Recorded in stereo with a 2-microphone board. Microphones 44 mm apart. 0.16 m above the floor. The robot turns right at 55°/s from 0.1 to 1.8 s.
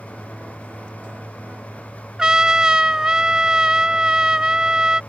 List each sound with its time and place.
2.2 s a trumpet: 20° right (ahead or behind)